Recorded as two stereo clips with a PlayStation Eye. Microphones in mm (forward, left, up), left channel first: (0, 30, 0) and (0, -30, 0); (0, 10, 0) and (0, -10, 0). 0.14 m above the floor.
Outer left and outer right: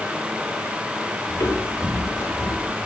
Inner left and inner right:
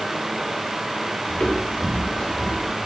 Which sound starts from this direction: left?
Footsteps, at 1.3 s.